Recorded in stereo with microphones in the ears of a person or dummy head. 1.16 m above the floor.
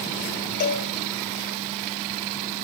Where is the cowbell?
45° left (ahead or behind), 2 m.